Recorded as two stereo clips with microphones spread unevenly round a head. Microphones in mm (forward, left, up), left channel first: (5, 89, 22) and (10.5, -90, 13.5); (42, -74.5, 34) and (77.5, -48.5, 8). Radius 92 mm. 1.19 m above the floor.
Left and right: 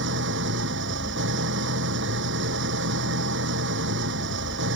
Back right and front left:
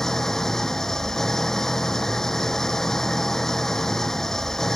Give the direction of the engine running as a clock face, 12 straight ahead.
2 o'clock.